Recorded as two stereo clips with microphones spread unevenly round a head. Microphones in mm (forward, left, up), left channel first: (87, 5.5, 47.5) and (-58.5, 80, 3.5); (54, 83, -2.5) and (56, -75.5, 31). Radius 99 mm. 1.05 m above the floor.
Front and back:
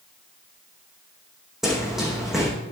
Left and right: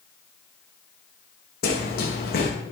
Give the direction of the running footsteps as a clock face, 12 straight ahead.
10 o'clock.